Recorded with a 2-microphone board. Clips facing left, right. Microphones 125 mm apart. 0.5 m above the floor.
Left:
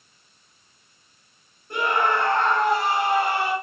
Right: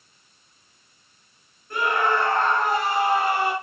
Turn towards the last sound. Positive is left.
turn(degrees=25)  # may be behind; listen again after turning